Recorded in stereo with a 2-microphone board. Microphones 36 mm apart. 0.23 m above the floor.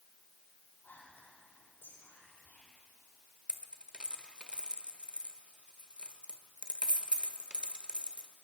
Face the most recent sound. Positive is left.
turn(degrees=-30)  # may be behind; listen again after turning